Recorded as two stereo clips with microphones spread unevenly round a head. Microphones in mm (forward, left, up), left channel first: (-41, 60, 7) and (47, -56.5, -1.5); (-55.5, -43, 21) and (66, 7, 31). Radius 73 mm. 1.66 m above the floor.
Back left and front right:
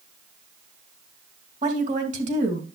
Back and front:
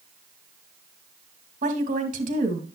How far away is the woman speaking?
About 3 m.